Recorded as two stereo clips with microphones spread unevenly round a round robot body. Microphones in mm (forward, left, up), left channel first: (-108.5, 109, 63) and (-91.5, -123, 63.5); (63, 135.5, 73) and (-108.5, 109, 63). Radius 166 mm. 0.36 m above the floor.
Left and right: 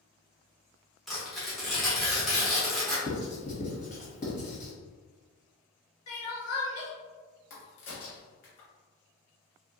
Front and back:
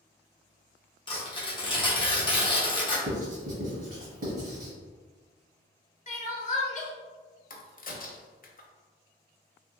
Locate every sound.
1.1 s tearing paper: 5° left, 1.1 m
3.1 s writing: 150° left, 1.3 m
6.1 s crying: 55° left, 0.8 m
7.5 s a crack: 50° left, 0.7 m